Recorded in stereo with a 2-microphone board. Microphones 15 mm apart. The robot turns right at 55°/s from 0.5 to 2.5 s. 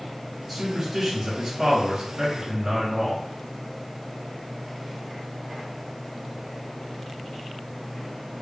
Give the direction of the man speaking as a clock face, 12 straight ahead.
6 o'clock.